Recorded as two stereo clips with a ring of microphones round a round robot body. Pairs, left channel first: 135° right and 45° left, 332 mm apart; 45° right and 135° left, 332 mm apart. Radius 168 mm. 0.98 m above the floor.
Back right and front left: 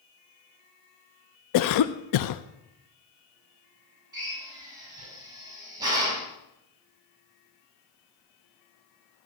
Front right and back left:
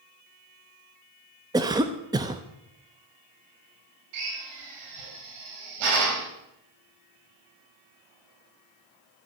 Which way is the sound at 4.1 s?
125° left.